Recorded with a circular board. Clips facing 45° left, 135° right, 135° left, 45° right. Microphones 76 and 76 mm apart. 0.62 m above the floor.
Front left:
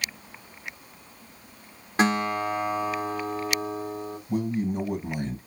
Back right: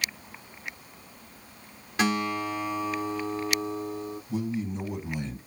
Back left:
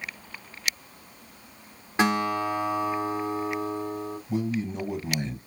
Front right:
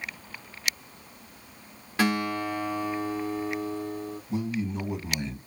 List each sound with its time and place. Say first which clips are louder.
2.0 s a guitar: front left 3 dB, back left 2 dB; 75° left, 1.4 m
4.3 s a man speaking: front left 5 dB, back left 2 dB; 75° left, 3.5 m